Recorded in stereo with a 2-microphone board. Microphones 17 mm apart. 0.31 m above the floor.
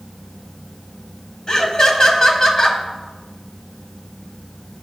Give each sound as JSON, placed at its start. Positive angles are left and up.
{"t": 1.5, "sound": "laughter", "side_deg": 40, "distance_m": 1.6}